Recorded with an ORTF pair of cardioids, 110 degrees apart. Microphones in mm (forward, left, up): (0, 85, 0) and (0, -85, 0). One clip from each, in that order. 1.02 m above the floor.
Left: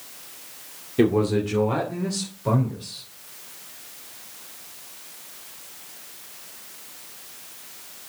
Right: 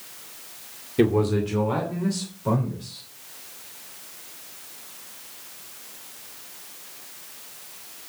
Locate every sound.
1.0 s a man speaking: straight ahead, 2 m; by 3.0 s 10° left, 3.5 m